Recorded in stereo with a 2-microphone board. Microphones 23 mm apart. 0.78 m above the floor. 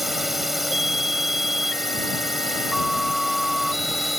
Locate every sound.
0.0 s a drone: 5° right (ahead or behind)